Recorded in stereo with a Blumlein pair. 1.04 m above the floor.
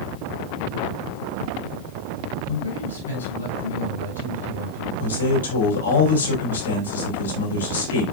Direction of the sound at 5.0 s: 70° left.